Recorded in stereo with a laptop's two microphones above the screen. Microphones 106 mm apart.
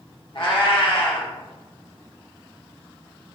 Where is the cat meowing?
55° left (ahead or behind), 0.9 m.